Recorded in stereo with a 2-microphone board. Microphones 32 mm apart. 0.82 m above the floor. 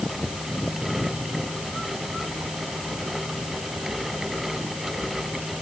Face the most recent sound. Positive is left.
No sound to turn to.